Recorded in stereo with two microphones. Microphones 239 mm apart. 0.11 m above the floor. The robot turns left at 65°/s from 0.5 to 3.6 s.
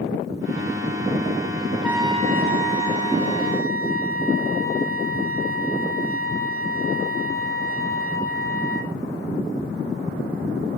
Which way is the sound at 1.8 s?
Straight ahead.